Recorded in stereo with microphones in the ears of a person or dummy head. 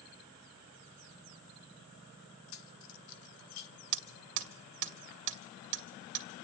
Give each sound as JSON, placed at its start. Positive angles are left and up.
{"t": 2.5, "sound": "keys jangling", "side_deg": 65, "distance_m": 1.1}
{"t": 3.9, "sound": "hammering", "side_deg": -65, "distance_m": 2.0}